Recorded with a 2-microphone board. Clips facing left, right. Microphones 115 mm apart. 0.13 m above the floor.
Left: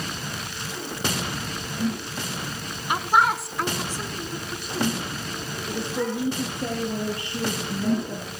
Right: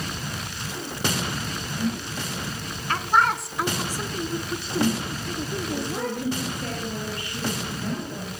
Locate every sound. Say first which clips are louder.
2.9 s a man speaking: left 1 dB; 15° left (ahead or behind), 1.1 m; by 6.4 s 55° right (ahead or behind), 1.9 m
5.7 s a woman speaking: left 5 dB; 25° left (ahead or behind), 3.5 m